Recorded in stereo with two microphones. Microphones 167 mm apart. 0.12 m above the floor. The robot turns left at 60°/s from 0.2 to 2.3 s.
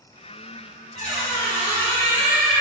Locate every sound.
0.9 s a squeak: 80° left, 1.3 m; by 2.6 s straight ahead, 1.3 m